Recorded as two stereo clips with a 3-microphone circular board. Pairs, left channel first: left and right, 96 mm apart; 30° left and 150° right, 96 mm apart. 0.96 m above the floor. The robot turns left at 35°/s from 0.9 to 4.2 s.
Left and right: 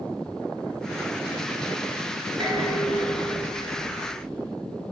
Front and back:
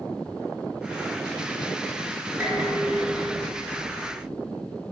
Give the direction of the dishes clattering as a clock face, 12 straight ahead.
3 o'clock.